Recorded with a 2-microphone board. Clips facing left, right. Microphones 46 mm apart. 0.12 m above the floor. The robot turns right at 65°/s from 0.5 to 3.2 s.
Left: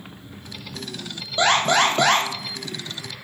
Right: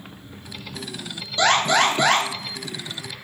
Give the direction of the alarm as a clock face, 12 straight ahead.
11 o'clock.